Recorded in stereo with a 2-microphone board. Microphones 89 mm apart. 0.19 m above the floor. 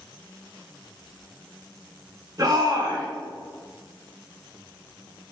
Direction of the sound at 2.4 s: 45° right (ahead or behind).